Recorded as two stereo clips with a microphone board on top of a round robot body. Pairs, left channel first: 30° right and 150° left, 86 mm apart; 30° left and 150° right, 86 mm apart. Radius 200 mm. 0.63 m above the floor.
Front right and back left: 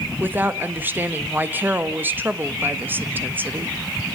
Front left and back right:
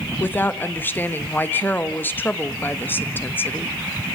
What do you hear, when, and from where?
0.2 s a woman speaking: 90° left, 1.5 m